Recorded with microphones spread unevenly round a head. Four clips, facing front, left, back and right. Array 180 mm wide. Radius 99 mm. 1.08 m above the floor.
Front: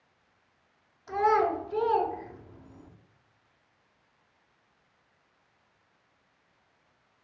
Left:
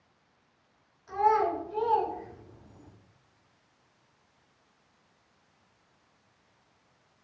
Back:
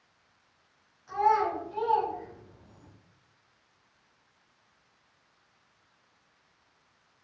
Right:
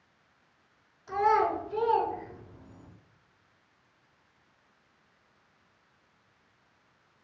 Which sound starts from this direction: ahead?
A child speaking, at 1.1 s.